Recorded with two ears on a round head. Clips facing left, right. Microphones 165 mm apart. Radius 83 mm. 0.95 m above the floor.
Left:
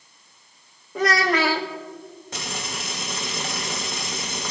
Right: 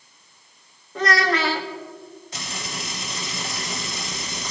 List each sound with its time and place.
0.9 s a child speaking: 10° left (ahead or behind), 0.7 m
2.3 s frying: 45° left (ahead or behind), 1.8 m